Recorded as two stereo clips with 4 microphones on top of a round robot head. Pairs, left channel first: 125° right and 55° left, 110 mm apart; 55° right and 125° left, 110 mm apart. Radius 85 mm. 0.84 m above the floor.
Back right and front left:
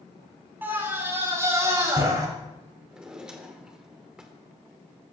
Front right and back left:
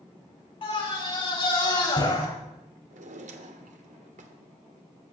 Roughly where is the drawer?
Behind left.